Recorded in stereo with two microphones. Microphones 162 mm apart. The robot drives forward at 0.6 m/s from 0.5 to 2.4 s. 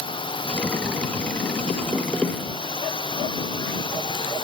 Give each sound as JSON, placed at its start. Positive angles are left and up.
{"t": 0.0, "sound": "a drone", "side_deg": 30}